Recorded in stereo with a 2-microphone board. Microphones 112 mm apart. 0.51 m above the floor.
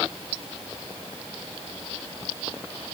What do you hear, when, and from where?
Only background noise.